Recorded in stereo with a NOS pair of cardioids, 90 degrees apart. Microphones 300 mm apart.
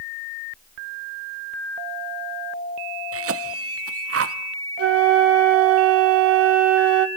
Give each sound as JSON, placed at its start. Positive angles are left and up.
{"t": 3.1, "sound": "a cough", "azimuth_deg": -50, "distance_m": 1.2}
{"t": 4.8, "sound": "a flute", "azimuth_deg": -50, "distance_m": 0.9}